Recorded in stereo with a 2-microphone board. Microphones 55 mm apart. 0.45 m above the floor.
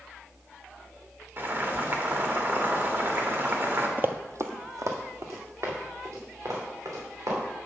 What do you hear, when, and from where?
1.4 s boiling: 40° right (ahead or behind), 1.3 m
4.0 s running footsteps: 35° right (ahead or behind), 0.5 m; by 7.4 s 65° right (ahead or behind), 4.5 m